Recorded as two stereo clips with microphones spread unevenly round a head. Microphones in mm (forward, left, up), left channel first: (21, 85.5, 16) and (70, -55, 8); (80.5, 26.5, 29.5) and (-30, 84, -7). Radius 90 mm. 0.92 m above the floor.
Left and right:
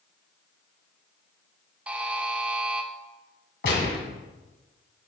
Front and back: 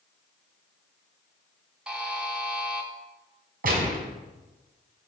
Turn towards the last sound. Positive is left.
turn(degrees=145)